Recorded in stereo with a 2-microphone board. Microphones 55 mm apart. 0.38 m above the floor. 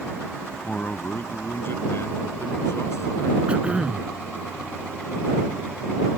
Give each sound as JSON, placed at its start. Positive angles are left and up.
{"t": 0.7, "sound": "a man speaking", "side_deg": 25}
{"t": 3.5, "sound": "throat clearing", "side_deg": -25}